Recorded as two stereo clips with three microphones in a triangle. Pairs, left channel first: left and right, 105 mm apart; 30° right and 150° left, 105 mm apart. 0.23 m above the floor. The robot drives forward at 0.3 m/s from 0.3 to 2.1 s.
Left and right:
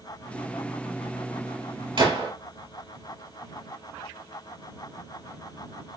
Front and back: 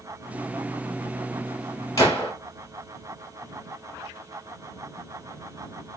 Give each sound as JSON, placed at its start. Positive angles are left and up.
{"t": 2.0, "sound": "a gunshot", "azimuth_deg": -80, "distance_m": 2.0}